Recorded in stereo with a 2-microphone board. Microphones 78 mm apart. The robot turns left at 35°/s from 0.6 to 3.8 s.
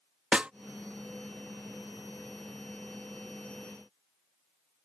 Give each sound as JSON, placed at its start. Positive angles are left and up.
{"t": 0.3, "sound": "a snare drum", "side_deg": -15}